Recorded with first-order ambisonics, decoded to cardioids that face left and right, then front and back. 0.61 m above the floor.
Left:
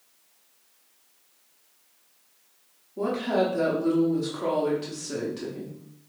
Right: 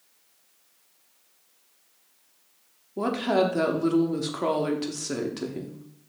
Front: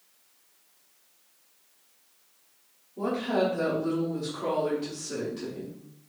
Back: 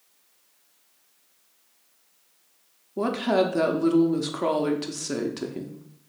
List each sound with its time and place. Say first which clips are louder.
3.0 s a woman speaking: right 1 dB, back 4 dB; 145° right, 0.8 m